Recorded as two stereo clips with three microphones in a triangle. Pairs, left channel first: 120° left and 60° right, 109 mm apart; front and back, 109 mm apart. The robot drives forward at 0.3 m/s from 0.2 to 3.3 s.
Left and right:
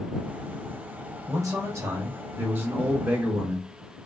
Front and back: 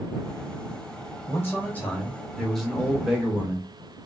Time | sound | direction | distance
1.3 | a man speaking | 45° right | 1.1 m